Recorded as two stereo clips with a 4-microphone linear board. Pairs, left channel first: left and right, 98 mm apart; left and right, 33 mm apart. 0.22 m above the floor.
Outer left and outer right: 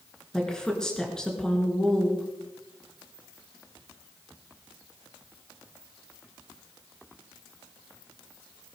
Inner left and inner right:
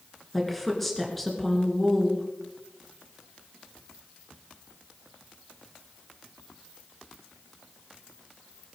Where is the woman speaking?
5° left (ahead or behind), 3.5 m.